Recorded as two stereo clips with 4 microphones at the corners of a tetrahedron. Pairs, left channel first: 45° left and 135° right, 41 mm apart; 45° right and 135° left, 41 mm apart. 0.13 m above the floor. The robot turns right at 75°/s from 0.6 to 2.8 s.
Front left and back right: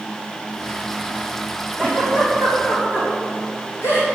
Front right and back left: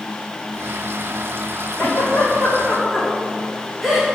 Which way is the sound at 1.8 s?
25° right.